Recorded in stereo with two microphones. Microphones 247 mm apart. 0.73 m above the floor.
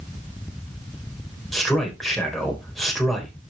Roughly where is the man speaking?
Centre.